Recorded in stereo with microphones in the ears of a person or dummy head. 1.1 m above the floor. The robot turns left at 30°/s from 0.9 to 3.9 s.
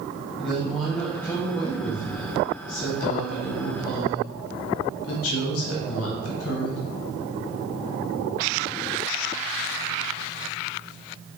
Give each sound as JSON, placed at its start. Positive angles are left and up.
{"t": 0.4, "sound": "a woman speaking", "azimuth_deg": 180, "distance_m": 0.7}